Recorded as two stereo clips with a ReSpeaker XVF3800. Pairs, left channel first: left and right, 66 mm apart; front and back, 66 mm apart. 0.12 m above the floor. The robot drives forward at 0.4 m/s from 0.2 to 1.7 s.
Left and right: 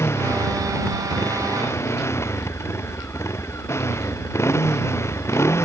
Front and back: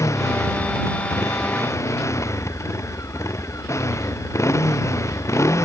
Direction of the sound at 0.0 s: 40° left.